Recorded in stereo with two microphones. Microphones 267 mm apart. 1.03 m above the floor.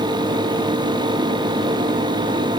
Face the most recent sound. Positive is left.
No sound to turn to.